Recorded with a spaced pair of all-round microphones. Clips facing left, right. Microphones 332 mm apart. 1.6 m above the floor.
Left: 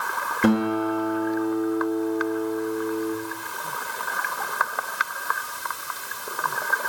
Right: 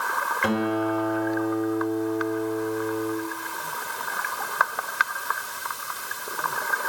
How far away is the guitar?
About 1.3 m.